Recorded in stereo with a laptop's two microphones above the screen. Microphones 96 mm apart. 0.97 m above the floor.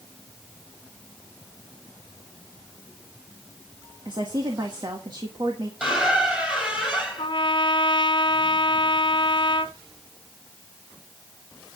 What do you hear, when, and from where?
4.0 s a woman speaking: 45° right (ahead or behind), 1.4 m
5.8 s a squeak: 10° right (ahead or behind), 3.5 m
7.2 s a trumpet: 55° left (ahead or behind), 1.4 m